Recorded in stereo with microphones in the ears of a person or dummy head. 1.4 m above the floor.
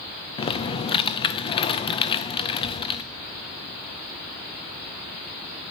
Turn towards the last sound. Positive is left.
turn(degrees=30)  # may be behind; listen again after turning